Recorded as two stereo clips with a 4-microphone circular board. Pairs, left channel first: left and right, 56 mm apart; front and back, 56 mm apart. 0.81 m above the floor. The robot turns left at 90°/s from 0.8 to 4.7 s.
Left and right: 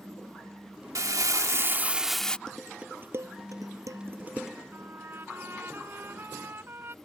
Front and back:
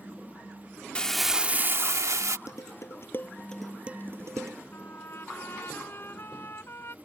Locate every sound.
0.9 s crumpling: 70° right; by 2.4 s 160° left
2.5 s dishes clattering: 15° left; by 4.6 s 175° right
4.7 s a trumpet: 40° right